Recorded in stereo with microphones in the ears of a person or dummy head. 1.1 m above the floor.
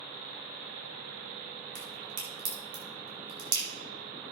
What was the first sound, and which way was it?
A crack, 70° right (ahead or behind).